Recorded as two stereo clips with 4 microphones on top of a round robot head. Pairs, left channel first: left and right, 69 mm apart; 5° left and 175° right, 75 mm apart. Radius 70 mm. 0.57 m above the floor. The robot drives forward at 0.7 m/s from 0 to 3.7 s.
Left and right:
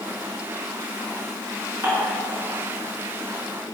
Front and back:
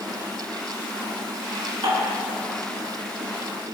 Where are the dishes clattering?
150° right, 5 m.